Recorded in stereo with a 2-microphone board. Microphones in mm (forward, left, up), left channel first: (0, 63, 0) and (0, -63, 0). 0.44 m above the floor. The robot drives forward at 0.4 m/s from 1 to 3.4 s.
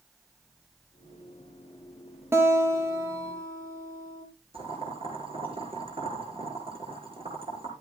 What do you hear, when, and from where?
2.3 s a guitar: 20° right (ahead or behind), 3 m; by 4.2 s 25° right (ahead or behind), 2.5 m
4.5 s boiling: 45° right (ahead or behind), 4.5 m